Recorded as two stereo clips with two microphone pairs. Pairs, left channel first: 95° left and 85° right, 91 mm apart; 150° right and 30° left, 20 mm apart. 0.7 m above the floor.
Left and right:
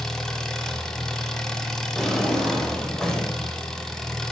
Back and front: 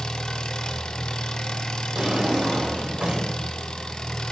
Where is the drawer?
10° left, 1.9 m.